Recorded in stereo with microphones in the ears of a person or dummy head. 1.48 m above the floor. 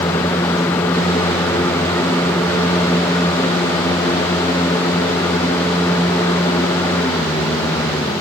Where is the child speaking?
No child speaking in this recording.